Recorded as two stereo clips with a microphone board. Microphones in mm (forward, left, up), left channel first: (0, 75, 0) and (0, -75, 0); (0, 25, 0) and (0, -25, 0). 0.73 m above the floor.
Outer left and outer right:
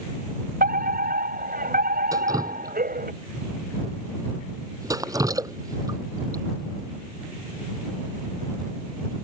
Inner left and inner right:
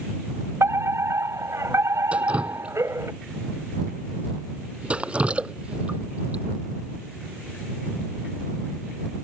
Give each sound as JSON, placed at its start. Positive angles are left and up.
{"t": 0.6, "sound": "a fire alarm", "side_deg": -75}
{"t": 2.1, "sound": "dripping", "side_deg": -25}